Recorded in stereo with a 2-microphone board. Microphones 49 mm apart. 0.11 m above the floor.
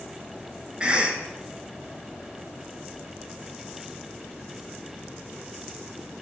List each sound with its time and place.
0.8 s a cough: 20° right (ahead or behind), 1.3 m